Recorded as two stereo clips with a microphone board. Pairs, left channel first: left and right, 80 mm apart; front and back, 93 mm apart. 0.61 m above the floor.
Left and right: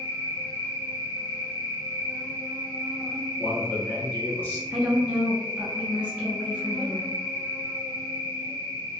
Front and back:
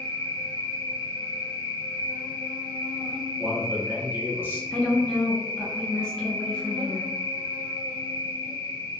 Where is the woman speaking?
60° right, 0.6 m.